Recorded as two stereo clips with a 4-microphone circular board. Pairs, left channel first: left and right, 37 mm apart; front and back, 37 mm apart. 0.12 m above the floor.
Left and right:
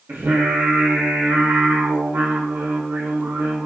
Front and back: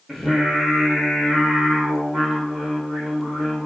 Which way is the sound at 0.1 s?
95° right.